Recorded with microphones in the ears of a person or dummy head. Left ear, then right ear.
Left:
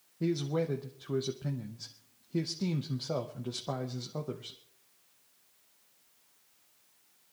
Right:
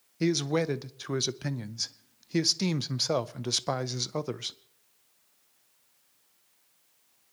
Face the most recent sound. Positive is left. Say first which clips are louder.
# right 5 dB
turn(degrees=-70)  # may be behind; listen again after turning